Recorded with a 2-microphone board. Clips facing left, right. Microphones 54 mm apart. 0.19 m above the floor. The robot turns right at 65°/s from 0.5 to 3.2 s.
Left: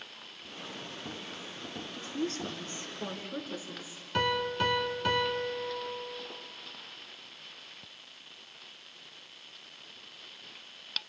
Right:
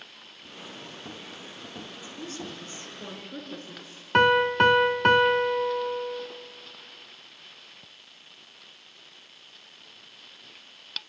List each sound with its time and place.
2.0 s a woman speaking: 95° left, 3 m; by 4.0 s 175° left, 3 m
4.1 s a piano: 55° right (ahead or behind), 1.0 m